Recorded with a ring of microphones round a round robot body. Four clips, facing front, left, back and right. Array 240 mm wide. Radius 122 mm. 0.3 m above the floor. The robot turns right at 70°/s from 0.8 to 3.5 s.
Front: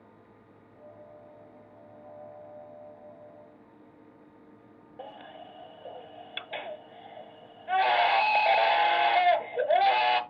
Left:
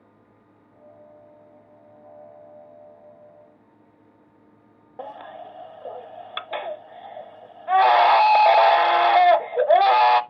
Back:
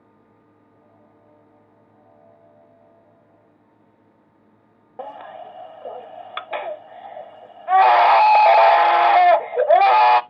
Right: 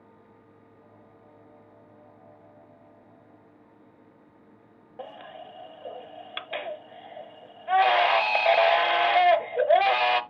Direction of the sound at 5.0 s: 155° left.